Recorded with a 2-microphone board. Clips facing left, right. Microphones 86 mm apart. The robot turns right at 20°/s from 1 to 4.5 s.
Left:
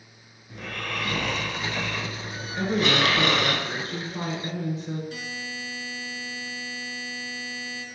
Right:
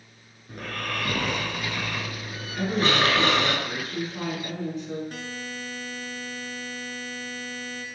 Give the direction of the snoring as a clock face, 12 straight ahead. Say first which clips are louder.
Right 1 dB; 3 o'clock.